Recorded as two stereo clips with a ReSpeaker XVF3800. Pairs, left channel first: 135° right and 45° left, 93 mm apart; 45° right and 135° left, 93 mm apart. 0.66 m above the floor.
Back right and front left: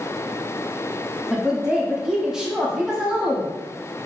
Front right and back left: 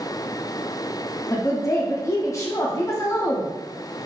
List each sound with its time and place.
1.3 s a woman speaking: 35° right, 0.7 m